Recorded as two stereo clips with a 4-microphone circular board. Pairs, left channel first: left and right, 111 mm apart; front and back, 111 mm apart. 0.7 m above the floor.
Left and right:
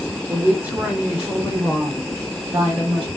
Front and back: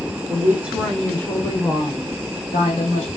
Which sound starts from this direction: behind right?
A woman speaking, at 0.3 s.